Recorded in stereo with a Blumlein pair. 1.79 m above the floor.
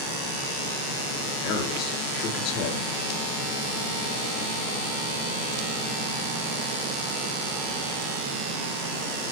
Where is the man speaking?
35° left, 5 m.